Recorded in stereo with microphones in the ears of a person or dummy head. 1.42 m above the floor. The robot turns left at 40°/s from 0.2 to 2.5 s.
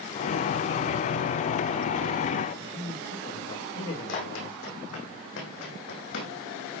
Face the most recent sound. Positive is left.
turn(degrees=65)  # may be behind; listen again after turning